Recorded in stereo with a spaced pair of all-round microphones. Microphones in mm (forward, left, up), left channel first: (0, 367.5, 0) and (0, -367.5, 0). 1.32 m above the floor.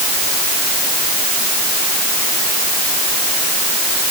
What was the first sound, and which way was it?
Only background noise.